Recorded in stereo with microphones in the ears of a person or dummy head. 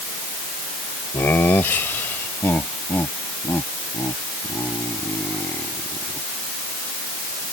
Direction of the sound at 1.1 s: 10° left (ahead or behind).